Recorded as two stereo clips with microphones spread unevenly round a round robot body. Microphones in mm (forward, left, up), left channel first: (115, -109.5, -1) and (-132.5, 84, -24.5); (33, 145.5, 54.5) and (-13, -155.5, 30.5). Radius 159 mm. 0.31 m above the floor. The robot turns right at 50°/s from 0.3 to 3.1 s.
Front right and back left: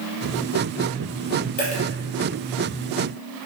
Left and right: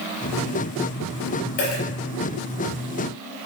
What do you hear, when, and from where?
1.6 s a dropped coin: 25° left, 4 m; by 1.8 s 35° left, 4 m